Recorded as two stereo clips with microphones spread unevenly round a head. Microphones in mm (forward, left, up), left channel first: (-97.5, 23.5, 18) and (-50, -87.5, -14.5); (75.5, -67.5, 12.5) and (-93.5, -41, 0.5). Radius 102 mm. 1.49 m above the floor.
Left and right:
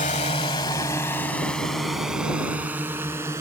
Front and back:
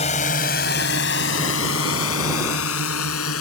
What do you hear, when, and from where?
0.0 s a drone: 55° left; by 3.4 s 10° left